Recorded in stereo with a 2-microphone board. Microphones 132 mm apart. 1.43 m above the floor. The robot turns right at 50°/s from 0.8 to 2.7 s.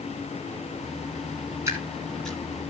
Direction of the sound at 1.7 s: 25° right (ahead or behind).